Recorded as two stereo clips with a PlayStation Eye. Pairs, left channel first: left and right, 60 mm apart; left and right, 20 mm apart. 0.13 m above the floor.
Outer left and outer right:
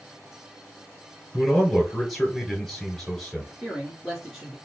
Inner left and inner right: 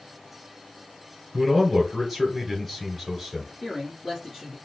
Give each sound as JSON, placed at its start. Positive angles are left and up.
{"t": 1.3, "sound": "a man speaking", "side_deg": 0, "distance_m": 2.0}
{"t": 3.6, "sound": "a man speaking", "side_deg": -10, "distance_m": 1.5}